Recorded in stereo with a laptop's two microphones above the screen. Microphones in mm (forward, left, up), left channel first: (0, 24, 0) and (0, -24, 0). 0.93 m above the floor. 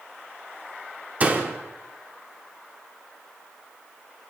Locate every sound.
1.2 s a door slam: 30° right (ahead or behind), 1.7 m